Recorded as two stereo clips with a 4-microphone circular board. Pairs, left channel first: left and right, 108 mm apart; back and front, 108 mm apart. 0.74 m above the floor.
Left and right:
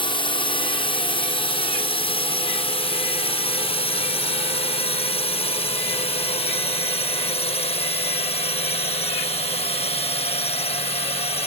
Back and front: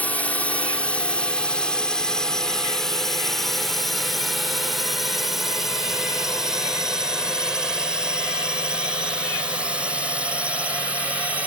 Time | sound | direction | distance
0.0 | a drone | 105° left | ?